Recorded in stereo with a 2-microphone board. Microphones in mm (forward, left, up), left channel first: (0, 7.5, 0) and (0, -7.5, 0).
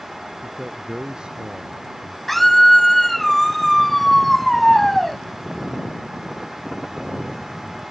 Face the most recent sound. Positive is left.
turn(degrees=10)  # may be behind; listen again after turning